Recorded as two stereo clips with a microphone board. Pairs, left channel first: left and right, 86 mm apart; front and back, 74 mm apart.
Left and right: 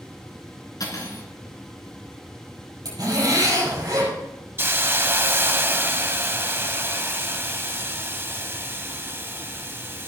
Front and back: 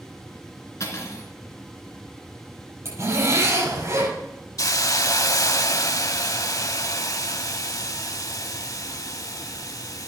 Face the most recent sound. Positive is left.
turn(degrees=-30)